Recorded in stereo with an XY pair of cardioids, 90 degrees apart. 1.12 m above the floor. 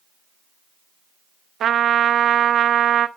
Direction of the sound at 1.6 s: 65° right.